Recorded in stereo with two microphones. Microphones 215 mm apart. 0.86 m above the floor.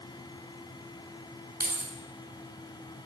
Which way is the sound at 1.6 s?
45° right (ahead or behind).